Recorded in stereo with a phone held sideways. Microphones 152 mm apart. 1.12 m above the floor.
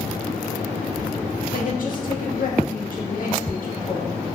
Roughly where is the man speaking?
Left.